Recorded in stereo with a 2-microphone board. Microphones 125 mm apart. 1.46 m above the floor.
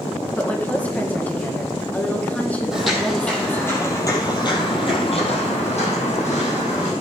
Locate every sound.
0.4 s a woman speaking: 10° left (ahead or behind), 1.7 m
2.7 s footsteps: 5° right (ahead or behind), 3.5 m; by 6.9 s 75° left (ahead or behind), 5 m